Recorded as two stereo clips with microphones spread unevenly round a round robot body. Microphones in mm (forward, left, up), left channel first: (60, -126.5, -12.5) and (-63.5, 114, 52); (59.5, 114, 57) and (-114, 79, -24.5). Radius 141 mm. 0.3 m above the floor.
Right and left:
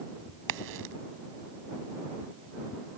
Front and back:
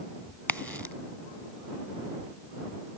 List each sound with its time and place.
0.5 s a crack: 105° left